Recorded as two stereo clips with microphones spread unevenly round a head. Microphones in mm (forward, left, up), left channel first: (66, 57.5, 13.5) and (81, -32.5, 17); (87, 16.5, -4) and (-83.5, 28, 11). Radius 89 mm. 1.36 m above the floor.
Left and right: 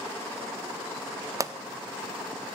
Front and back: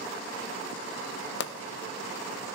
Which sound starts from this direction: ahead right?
A pop, at 1.4 s.